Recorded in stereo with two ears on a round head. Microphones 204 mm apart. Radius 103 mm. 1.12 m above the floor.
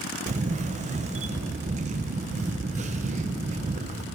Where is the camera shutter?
30° right (ahead or behind), 0.8 m.